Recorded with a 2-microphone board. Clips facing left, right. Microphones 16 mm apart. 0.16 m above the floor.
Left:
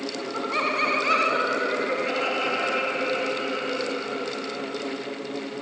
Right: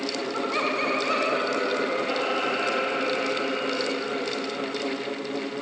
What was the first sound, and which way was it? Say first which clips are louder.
Laughter: left 2 dB; 5° right (ahead or behind).